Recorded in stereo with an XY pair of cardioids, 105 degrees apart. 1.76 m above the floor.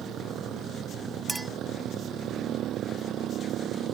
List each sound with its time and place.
0.0 s a motorcycle: 70° right
1.3 s a clink: 10° right